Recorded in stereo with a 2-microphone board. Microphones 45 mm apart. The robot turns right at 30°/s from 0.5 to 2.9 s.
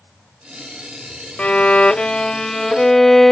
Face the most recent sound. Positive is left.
turn(degrees=165)